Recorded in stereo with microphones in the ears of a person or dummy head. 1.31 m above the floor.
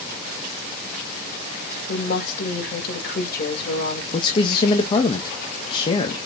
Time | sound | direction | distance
1.9 | a woman speaking | 55° left (ahead or behind) | 4 m
4.1 | a man speaking | 30° left (ahead or behind) | 1.3 m